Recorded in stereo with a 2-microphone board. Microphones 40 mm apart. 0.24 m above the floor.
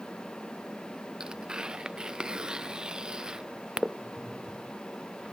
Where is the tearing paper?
20° right (ahead or behind).